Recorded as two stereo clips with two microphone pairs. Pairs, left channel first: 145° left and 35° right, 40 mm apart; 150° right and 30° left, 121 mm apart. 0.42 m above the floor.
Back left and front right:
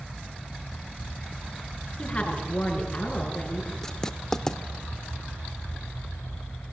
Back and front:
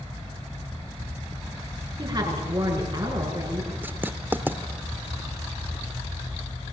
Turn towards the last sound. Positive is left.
turn(degrees=90)